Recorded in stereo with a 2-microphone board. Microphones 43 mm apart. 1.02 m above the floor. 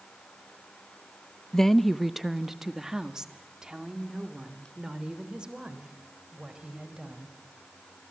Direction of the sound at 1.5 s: 15° left (ahead or behind).